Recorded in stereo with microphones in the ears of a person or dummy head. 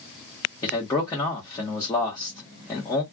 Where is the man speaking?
15° left (ahead or behind), 1.1 m.